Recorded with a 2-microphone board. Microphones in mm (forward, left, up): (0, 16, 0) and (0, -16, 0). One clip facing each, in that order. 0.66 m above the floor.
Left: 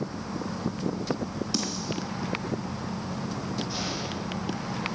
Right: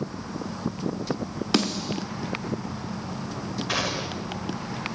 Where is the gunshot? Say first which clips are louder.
Right 4 dB; 70° right (ahead or behind), 2 m.